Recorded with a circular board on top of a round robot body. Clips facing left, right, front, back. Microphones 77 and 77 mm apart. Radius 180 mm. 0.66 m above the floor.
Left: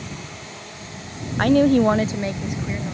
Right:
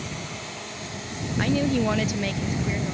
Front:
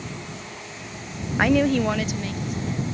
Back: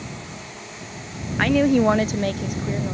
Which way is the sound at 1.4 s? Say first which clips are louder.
Left 8 dB, back 2 dB; 75° left.